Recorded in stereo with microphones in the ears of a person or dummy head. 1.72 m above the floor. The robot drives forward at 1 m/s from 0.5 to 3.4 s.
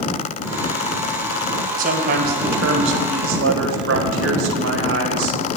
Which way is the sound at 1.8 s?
45° right (ahead or behind).